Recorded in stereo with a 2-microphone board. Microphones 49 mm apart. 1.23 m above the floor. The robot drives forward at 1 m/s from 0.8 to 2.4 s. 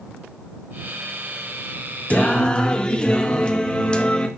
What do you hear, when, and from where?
2.1 s singing: 30° left (ahead or behind), 0.7 m; by 4.3 s 20° left (ahead or behind), 0.9 m